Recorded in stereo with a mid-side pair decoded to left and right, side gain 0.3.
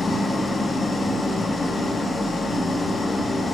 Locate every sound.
0.0 s an engine running: 55° left, 2.5 m